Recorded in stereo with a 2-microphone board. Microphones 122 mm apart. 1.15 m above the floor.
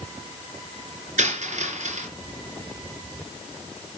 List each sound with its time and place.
1.2 s a dropped coin: 75° right (ahead or behind), 4 m